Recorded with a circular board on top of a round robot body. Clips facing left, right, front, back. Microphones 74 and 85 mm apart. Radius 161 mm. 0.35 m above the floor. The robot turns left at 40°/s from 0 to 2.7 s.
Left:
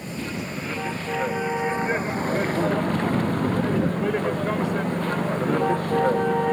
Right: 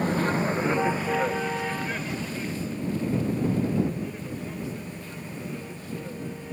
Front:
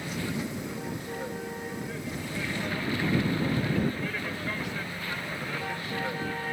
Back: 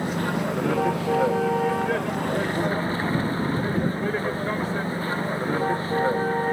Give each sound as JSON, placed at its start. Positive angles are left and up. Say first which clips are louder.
{"t": 0.0, "sound": "a vehicle", "louder": "right 7 dB, back 8 dB", "azimuth_deg": -130}